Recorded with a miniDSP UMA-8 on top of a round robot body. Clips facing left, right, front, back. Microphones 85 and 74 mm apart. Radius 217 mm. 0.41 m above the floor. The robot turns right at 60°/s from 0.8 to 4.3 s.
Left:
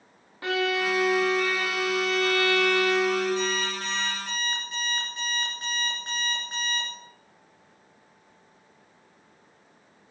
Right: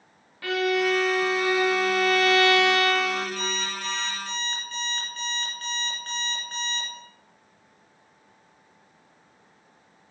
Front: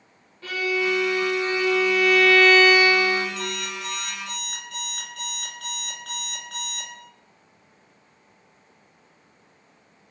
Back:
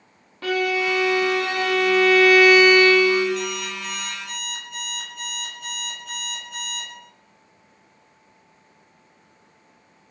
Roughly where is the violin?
Behind left.